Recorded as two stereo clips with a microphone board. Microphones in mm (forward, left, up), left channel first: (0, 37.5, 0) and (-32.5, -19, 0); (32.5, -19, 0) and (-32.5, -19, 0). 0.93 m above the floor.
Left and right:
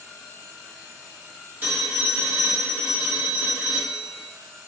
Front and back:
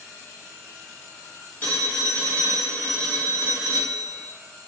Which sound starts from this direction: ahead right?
A phone ringing, at 1.6 s.